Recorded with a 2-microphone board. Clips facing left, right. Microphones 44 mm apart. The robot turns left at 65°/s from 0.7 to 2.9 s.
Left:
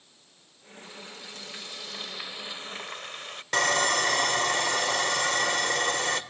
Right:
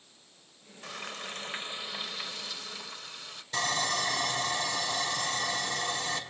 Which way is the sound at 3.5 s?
70° left (ahead or behind).